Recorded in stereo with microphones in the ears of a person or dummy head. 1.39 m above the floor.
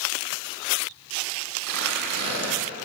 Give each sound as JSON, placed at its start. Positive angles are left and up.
{"t": 1.6, "sound": "tearing paper", "side_deg": -60, "distance_m": 6.0}